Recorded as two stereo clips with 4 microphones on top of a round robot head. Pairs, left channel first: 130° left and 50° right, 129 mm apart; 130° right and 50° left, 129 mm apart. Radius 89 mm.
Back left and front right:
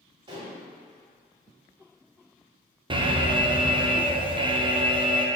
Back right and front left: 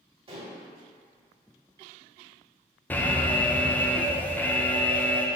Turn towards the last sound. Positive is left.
turn(degrees=-60)